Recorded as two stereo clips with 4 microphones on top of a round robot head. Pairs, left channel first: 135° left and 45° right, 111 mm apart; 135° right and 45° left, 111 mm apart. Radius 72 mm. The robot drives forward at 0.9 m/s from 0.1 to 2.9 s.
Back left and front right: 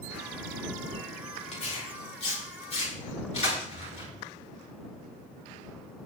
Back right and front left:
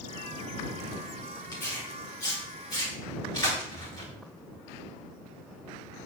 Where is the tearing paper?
170° left, 7 m.